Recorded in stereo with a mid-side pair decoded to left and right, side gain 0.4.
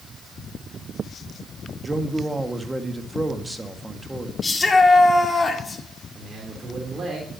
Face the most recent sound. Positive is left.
turn(degrees=-40)